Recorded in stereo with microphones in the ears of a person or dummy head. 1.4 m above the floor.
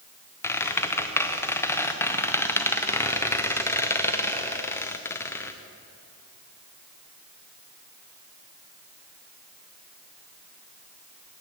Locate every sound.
0.4 s a squeak: 15° left (ahead or behind), 0.6 m